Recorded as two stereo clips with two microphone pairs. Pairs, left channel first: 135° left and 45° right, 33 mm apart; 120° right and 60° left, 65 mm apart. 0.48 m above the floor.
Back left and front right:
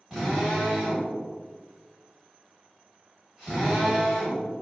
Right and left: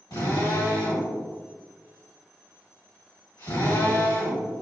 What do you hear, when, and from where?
0.1 s a drill: 125° right, 1.6 m